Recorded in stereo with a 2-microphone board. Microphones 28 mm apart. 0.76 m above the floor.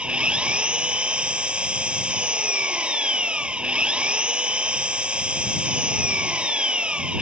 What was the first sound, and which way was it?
An engine running, 40° right (ahead or behind).